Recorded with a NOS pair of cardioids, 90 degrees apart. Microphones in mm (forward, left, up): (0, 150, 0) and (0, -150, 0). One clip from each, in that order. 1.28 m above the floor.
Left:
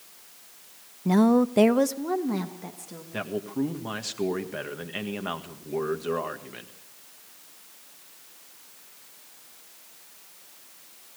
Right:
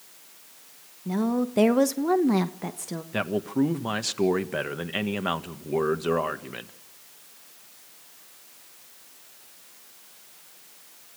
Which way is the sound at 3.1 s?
35° right.